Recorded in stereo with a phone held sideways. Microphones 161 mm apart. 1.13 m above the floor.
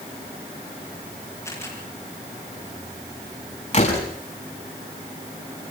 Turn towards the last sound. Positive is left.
turn(degrees=45)  # may be behind; listen again after turning